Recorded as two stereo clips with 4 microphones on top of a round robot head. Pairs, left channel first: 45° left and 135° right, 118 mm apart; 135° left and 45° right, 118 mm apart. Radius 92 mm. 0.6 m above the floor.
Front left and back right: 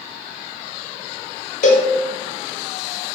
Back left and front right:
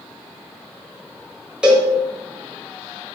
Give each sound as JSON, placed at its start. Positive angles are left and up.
{"t": 1.6, "sound": "a cowbell", "azimuth_deg": 35, "distance_m": 1.4}